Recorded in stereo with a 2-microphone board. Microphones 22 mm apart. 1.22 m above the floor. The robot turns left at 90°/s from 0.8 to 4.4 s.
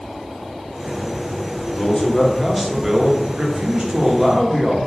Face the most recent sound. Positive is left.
turn(degrees=-170)